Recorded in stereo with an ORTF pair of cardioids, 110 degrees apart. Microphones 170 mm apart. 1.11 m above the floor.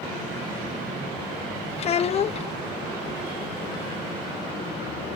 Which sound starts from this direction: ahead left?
A child speaking, at 1.8 s.